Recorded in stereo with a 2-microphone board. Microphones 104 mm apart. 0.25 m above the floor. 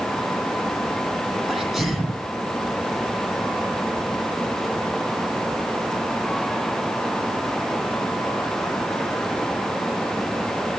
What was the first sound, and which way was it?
A sneeze, centre (ahead or behind).